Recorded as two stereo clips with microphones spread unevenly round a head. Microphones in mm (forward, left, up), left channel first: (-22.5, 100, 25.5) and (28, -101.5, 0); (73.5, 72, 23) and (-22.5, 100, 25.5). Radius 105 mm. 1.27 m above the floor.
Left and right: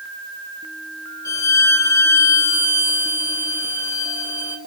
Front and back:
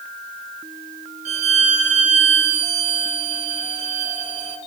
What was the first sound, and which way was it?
A violin, straight behind.